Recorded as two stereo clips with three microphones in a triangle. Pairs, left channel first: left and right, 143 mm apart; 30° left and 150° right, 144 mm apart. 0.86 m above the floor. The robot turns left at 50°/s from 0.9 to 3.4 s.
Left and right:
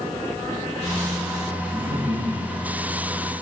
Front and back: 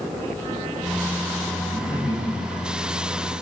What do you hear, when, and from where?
1.6 s laughter: 25° right, 4.5 m; by 2.8 s 85° right, 4.5 m